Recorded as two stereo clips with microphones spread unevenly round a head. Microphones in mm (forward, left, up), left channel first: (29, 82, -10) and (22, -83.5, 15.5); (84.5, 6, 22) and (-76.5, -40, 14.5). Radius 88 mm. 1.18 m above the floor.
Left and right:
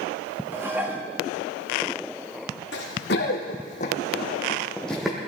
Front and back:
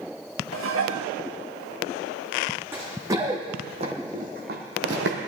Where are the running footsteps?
115° left, 3 m; by 5.2 s 170° right, 2.5 m.